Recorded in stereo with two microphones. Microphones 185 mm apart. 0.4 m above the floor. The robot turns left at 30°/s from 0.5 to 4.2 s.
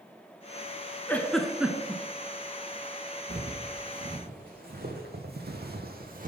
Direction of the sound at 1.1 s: 10° left (ahead or behind).